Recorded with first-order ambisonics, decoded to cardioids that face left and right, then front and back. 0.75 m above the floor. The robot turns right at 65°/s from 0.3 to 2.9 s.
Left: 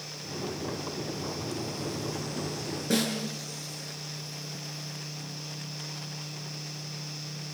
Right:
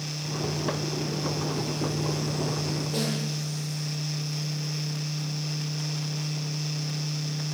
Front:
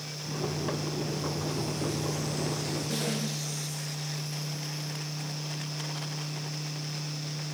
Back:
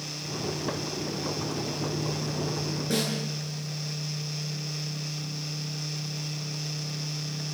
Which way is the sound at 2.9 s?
115° left.